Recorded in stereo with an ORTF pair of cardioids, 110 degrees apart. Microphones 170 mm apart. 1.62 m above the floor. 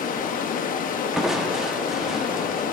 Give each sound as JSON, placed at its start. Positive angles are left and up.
{"t": 0.0, "sound": "running water", "azimuth_deg": 55, "distance_m": 0.8}
{"t": 1.1, "sound": "crushing", "azimuth_deg": 0, "distance_m": 1.1}